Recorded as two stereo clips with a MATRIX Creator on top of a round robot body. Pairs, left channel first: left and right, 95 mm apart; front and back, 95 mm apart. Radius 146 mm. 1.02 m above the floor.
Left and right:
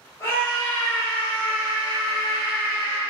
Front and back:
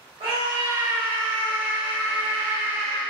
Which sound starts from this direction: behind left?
A scream, at 0.2 s.